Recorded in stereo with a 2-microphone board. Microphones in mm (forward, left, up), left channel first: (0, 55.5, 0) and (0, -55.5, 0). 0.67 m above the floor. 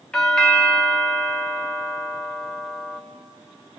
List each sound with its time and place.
0.1 s a doorbell: 5° left (ahead or behind), 1.4 m